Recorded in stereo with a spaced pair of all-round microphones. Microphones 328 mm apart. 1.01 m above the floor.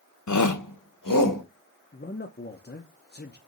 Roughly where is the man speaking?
Left.